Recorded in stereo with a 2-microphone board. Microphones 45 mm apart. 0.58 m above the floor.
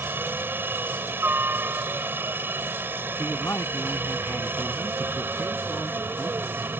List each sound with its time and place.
0.0 s a helicopter: 55° right (ahead or behind)
3.2 s a man speaking: 60° left (ahead or behind)